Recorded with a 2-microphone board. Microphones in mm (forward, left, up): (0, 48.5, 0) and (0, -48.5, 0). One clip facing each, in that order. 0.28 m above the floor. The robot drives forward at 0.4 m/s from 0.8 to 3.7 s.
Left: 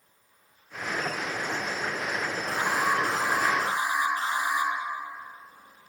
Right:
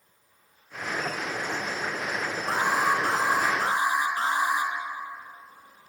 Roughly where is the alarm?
Right.